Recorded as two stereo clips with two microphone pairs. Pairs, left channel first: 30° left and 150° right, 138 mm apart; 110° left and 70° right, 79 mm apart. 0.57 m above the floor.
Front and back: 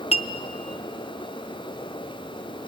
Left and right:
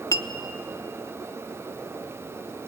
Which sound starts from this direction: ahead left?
A clink, at 0.1 s.